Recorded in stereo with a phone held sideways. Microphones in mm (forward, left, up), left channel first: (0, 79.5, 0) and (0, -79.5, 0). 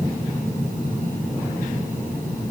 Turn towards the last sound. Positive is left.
No sound to turn to.